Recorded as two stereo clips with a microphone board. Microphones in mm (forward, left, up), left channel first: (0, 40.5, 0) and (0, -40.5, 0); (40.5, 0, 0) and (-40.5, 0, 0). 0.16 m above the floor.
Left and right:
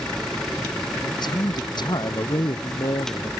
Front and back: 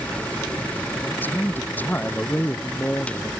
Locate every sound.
1.0 s a man speaking: 70° left